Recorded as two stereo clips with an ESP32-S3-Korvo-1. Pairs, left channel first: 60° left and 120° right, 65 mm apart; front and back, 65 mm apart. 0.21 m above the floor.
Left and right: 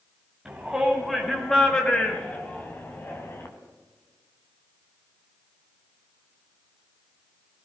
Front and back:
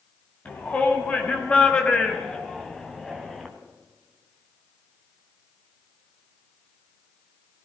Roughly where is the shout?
Ahead right.